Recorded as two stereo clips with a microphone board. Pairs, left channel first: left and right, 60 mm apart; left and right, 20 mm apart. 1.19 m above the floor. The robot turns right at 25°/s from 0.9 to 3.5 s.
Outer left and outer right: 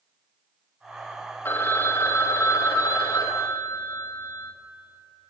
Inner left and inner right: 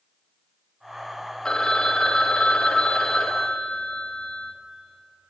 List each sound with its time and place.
1.4 s a phone ringing: 45° left, 0.7 m; by 4.5 s 100° left, 0.7 m